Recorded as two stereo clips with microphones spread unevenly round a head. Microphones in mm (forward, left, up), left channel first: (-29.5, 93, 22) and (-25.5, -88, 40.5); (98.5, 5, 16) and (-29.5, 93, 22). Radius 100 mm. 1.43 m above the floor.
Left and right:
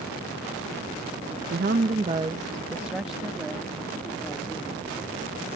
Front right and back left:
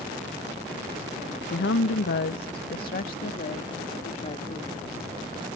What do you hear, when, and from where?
1.5 s a woman speaking: 50° right; by 4.9 s 10° left